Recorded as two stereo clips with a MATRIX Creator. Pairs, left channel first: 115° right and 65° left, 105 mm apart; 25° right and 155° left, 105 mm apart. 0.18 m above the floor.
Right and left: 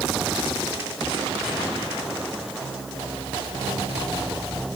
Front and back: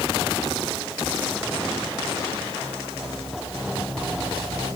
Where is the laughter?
I don't hear laughter.